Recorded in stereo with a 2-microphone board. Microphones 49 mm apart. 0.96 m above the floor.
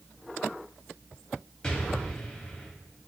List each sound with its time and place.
1.6 s an explosion: 25° left (ahead or behind), 0.7 m